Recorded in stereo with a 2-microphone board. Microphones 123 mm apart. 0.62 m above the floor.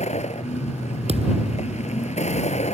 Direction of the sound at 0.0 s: 65° left (ahead or behind).